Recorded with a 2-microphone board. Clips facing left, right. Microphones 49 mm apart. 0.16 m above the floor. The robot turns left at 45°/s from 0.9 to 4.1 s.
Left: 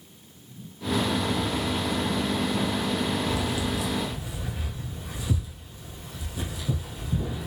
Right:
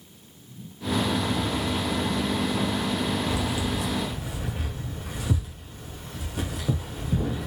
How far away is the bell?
I don't hear a bell.